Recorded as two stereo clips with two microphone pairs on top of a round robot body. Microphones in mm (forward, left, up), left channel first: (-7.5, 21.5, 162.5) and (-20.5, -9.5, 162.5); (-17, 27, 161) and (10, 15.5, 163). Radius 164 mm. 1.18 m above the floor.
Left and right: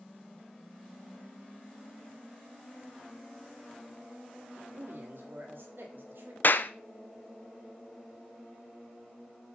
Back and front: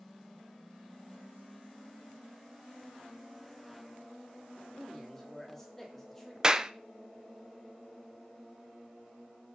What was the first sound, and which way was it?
A man speaking, 120° right.